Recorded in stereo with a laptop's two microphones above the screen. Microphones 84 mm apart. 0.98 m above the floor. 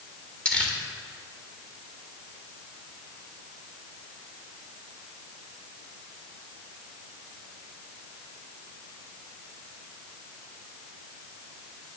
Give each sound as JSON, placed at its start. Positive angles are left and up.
{"t": 0.5, "sound": "crumpling", "side_deg": 15, "distance_m": 1.7}